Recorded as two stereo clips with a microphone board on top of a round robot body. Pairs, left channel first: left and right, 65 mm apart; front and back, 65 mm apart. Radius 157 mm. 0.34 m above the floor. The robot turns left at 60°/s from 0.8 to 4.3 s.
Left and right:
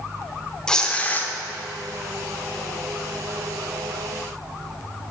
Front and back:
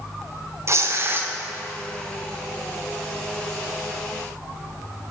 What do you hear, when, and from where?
0.7 s tearing paper: 165° left, 1.4 m; by 1.3 s 135° left, 1.4 m